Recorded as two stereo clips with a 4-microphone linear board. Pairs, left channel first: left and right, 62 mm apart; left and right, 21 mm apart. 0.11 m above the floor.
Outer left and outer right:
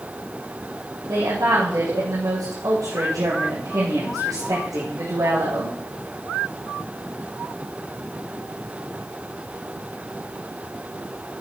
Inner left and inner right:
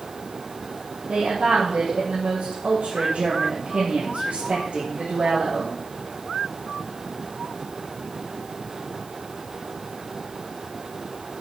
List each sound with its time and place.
1.1 s a woman speaking: 70° right (ahead or behind), 4.5 m